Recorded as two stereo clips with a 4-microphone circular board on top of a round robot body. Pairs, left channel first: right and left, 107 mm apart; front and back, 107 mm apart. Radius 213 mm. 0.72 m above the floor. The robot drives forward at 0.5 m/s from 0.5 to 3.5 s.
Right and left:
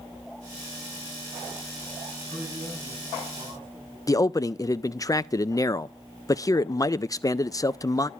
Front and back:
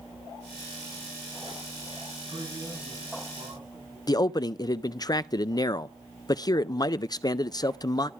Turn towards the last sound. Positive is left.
turn(degrees=-40)